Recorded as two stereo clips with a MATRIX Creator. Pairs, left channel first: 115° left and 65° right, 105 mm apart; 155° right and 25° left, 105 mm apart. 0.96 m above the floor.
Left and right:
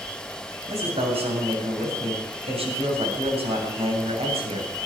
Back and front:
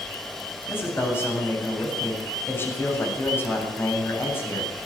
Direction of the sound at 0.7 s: 90° right.